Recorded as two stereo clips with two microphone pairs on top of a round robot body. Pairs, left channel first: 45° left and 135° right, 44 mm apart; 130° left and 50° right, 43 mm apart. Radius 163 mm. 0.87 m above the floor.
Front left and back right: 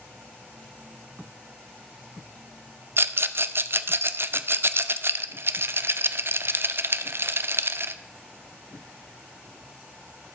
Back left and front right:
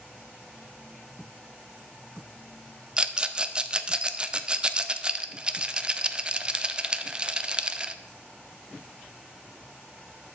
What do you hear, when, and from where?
3.0 s a rattle: 120° right, 0.6 m